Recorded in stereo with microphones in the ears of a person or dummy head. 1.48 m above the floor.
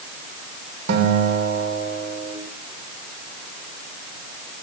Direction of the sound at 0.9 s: 55° right (ahead or behind).